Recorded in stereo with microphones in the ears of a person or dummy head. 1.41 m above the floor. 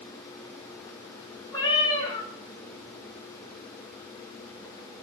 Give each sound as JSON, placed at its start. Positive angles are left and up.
{"t": 1.5, "sound": "a cat meowing", "side_deg": 25, "distance_m": 1.4}